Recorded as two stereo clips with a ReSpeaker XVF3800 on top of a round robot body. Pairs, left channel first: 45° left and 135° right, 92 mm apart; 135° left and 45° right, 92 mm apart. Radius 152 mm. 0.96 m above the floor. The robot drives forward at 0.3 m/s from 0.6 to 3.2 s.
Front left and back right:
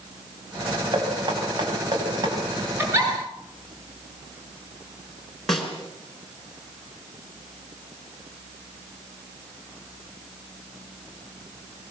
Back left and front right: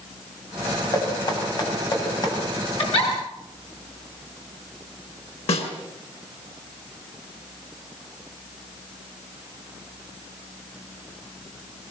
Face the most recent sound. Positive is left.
turn(degrees=130)